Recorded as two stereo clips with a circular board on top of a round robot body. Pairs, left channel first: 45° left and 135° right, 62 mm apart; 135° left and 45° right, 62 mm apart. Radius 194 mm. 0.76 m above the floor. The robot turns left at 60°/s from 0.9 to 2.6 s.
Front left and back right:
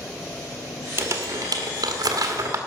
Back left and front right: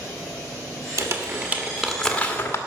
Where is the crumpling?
80° right, 1.7 m; by 2.6 s 175° right, 1.7 m.